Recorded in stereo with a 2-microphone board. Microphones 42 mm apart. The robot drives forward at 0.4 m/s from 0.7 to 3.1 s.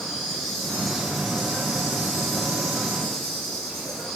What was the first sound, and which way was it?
An insect, centre (ahead or behind).